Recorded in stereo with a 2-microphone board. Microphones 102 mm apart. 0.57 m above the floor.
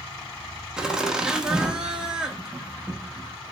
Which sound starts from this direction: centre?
Laughter, at 0.8 s.